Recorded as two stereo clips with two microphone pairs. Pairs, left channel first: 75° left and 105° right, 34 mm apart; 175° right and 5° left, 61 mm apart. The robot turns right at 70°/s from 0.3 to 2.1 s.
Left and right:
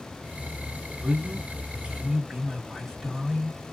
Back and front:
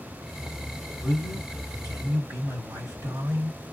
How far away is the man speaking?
About 2.5 m.